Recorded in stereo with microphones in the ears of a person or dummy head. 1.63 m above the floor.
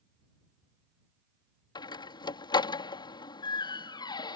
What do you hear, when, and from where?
1.8 s a door slam: 30° left (ahead or behind)